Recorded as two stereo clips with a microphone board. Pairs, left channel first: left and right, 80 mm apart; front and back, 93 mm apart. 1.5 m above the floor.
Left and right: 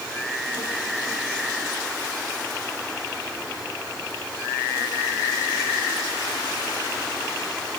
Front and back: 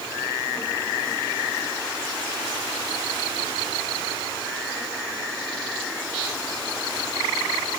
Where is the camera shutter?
No camera shutter in this recording.